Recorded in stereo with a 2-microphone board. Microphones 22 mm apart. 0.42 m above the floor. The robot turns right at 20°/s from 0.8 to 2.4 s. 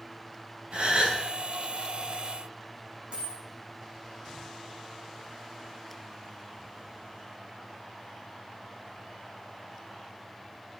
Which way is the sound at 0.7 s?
55° right (ahead or behind).